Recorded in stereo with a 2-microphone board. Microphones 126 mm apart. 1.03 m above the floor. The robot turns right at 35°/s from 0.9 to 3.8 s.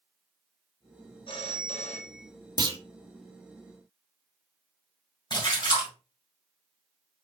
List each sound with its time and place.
1.3 s a phone ringing: 45° left, 0.9 m; by 2.3 s 80° left, 0.9 m
2.6 s a clunk: 35° right (ahead or behind), 0.8 m; by 2.8 s 40° right (ahead or behind), 0.8 m
5.3 s a splash: 35° left (ahead or behind), 2.5 m